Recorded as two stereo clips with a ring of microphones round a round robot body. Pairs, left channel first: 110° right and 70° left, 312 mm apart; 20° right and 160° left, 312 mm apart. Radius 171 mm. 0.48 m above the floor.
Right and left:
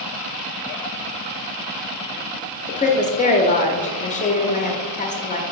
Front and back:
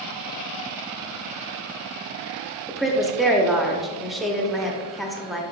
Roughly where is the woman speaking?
Behind right.